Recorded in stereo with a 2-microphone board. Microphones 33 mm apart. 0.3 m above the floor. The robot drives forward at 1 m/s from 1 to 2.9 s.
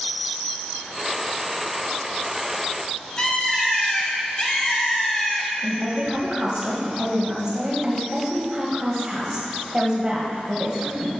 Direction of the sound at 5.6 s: 20° right (ahead or behind).